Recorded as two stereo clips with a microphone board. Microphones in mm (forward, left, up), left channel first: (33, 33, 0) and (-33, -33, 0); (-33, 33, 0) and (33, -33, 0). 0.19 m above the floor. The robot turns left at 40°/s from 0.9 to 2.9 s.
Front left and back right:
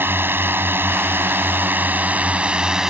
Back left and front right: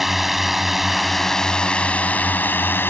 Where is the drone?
130° right; by 2.9 s 150° left.